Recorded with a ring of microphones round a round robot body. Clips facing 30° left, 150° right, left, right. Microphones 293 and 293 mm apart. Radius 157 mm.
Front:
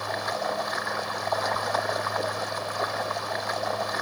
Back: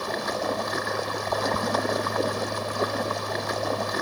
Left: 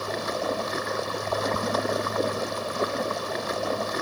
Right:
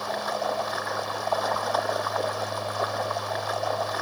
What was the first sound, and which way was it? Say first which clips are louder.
Running water: back 3 dB, left 2 dB; 155° left.